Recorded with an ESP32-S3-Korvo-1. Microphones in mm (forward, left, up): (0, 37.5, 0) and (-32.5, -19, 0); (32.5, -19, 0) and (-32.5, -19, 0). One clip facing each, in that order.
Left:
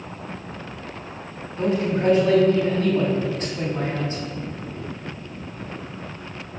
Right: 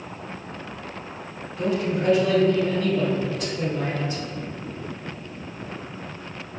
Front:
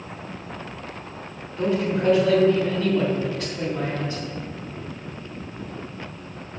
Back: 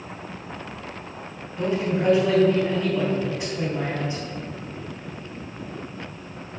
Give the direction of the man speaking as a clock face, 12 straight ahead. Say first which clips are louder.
Left 2 dB, front 1 dB; 8 o'clock.